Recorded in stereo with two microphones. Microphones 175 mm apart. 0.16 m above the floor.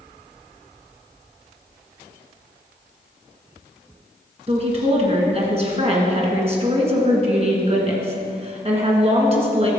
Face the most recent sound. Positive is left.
turn(degrees=-35)  # may be behind; listen again after turning